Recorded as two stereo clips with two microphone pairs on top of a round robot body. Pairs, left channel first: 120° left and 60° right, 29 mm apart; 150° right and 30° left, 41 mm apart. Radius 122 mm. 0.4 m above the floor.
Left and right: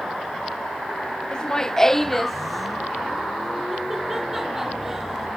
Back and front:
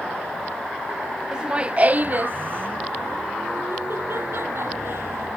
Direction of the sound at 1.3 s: 75° left.